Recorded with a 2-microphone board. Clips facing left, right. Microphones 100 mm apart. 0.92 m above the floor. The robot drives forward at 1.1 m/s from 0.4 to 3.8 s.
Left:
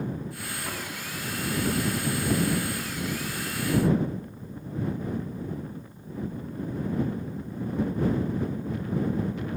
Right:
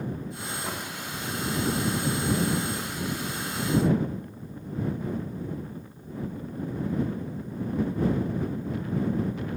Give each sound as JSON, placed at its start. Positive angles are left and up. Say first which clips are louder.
{"t": 0.6, "sound": "knocking", "louder": "right 1 dB", "side_deg": -15, "distance_m": 1.3}